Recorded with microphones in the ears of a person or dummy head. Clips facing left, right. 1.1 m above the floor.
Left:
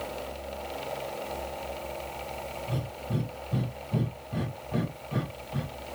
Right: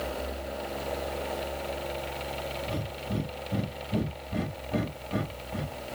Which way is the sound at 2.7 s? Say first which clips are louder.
Right 1 dB; 20° right (ahead or behind).